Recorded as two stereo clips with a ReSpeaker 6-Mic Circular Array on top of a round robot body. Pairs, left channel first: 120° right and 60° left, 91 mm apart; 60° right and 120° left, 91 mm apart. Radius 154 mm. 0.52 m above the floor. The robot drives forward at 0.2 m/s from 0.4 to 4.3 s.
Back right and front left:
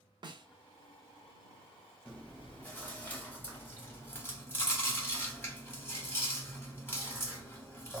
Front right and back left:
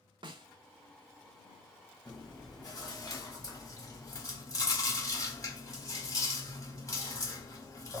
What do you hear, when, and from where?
0.2 s a snare drum: 90° left, 0.8 m; by 0.5 s 95° left, 0.8 m
2.0 s chewing: 45° right, 1.6 m; by 8.0 s 75° right, 1.4 m